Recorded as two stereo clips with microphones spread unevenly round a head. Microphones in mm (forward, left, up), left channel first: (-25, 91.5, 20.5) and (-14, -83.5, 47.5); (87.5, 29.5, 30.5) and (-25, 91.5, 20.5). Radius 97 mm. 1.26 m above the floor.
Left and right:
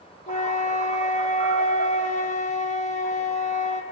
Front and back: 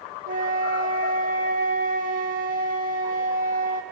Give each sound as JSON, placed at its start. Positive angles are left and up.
{"t": 0.3, "sound": "a flute", "azimuth_deg": 145, "distance_m": 1.4}